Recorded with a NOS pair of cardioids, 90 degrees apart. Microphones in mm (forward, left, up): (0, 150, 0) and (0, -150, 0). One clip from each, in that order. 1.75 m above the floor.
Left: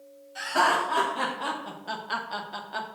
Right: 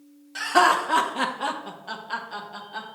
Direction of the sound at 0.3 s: 65° right.